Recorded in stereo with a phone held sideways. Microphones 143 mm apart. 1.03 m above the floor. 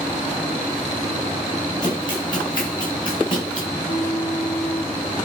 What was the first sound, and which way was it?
Running footsteps, 30° left (ahead or behind).